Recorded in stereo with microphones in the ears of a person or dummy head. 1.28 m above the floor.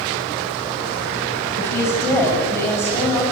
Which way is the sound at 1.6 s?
15° left (ahead or behind).